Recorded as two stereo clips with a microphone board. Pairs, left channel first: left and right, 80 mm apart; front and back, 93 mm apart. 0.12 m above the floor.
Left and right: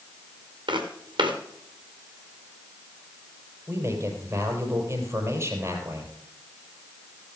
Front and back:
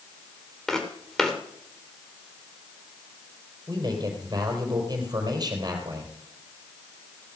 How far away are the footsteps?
About 2.5 m.